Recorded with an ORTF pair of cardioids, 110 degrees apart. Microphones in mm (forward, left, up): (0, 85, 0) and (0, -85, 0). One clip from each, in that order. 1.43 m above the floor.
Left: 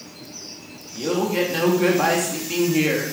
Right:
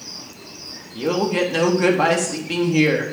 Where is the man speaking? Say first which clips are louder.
Right 2 dB; 20° right, 3.5 m.